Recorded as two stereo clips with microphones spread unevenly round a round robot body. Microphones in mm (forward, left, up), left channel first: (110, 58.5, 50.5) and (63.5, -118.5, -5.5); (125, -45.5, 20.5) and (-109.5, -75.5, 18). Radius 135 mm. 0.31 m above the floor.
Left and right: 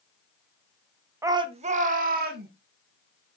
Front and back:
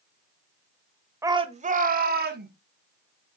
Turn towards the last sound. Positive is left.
turn(degrees=-130)